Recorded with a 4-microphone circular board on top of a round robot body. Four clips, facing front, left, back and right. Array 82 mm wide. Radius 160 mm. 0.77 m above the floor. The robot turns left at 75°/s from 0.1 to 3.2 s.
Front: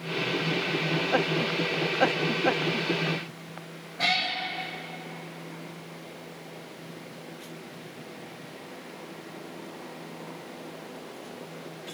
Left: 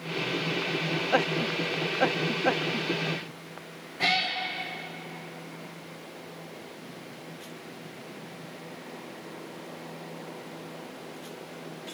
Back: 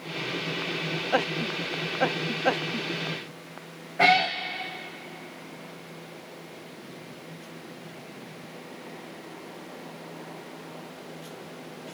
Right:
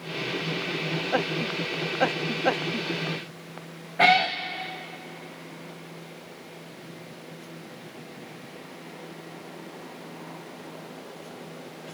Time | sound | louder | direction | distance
4.0 | a cat meowing | right 8 dB, back 7 dB | 125° right | 0.8 m